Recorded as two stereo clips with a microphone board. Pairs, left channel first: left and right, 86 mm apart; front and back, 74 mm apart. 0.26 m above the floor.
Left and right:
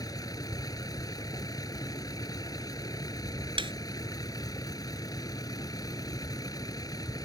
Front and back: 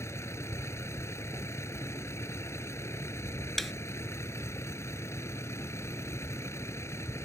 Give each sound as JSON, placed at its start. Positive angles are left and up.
{"t": 0.0, "sound": "a vehicle", "azimuth_deg": 50}
{"t": 3.6, "sound": "a snare drum", "azimuth_deg": -90}